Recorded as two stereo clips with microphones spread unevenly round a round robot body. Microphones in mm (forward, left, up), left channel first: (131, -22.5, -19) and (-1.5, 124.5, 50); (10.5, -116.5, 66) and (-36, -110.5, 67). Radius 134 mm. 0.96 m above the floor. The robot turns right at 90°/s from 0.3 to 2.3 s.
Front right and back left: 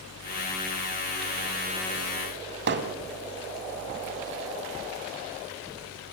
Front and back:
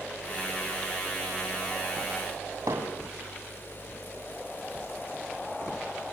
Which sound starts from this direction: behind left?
Hammering, at 2.7 s.